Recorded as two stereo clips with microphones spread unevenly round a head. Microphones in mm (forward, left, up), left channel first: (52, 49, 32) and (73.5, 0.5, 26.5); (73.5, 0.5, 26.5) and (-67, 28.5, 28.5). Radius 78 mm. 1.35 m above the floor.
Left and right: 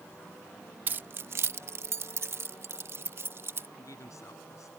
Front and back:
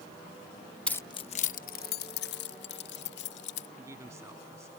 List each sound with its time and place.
0.9 s keys jangling: 90° right; by 3.7 s 25° right
3.8 s a man speaking: 95° left